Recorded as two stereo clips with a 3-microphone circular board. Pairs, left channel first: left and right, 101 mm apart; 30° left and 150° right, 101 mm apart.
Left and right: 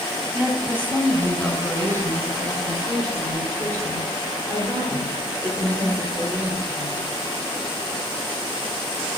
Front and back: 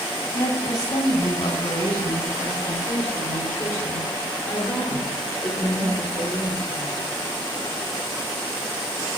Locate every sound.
0.3 s a woman speaking: 10° right, 2.5 m; by 7.0 s 45° right, 9 m